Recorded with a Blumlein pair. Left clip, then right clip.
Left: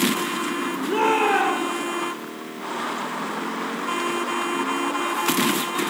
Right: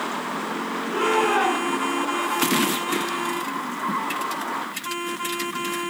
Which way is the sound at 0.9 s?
25° left.